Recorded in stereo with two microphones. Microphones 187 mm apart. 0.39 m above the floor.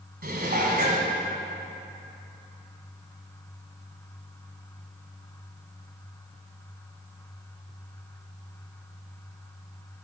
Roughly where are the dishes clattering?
Right.